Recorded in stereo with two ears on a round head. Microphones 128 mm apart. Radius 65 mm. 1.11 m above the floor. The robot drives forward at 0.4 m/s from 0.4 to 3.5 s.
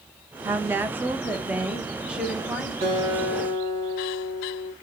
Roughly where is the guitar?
Right.